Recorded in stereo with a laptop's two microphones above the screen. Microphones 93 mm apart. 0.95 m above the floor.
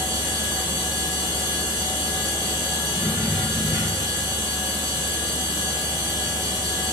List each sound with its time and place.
0.0 s a machine running: 45° right (ahead or behind), 2.0 m